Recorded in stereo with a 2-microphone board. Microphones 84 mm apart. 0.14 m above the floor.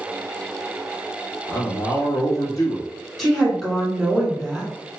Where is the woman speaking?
5° left (ahead or behind), 1.9 m.